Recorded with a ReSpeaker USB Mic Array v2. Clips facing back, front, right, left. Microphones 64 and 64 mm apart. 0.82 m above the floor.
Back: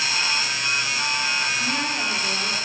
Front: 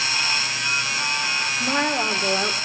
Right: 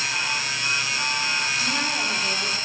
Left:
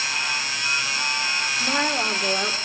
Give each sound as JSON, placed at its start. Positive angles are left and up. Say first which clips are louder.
{"t": 1.6, "sound": "a woman speaking", "louder": "front 3 dB, left 3 dB", "azimuth_deg": 40, "distance_m": 2.0}